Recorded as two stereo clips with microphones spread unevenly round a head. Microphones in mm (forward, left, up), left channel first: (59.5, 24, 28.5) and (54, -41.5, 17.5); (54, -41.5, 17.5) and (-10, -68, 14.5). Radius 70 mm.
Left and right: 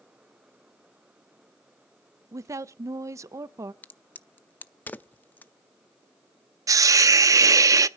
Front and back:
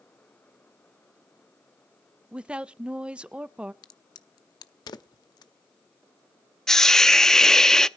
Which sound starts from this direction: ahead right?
A hiss, at 6.7 s.